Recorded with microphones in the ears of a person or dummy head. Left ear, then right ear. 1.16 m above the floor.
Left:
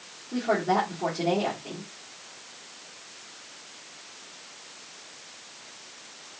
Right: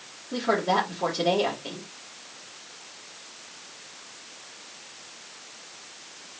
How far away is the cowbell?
I don't hear a cowbell.